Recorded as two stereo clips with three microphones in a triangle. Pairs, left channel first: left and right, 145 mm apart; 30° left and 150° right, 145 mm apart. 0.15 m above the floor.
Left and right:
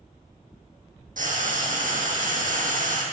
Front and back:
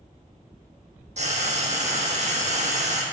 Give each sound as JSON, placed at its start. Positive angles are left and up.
{"t": 1.2, "sound": "frying", "azimuth_deg": -110, "distance_m": 1.2}